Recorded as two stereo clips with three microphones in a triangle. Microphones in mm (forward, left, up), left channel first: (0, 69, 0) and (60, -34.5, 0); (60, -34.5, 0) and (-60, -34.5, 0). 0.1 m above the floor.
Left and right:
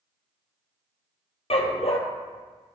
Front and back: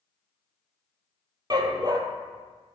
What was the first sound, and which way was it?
A dog barking, 130° left.